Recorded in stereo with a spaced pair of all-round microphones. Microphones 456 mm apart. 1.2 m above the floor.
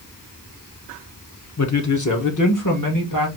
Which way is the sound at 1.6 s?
35° left (ahead or behind).